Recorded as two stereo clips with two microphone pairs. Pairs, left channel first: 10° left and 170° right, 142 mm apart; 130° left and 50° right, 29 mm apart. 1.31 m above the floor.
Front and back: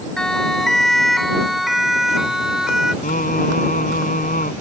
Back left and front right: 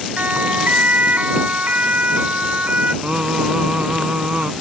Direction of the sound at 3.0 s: Straight ahead.